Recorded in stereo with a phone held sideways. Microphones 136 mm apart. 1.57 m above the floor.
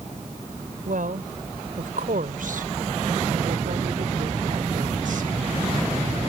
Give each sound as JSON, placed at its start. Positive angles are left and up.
{"t": 0.8, "sound": "a woman speaking", "side_deg": -85}